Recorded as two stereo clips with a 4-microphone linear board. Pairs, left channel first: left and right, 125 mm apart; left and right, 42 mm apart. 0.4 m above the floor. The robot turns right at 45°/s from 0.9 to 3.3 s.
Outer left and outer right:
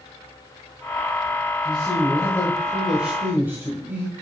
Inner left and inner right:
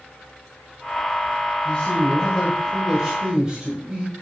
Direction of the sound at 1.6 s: 130° left.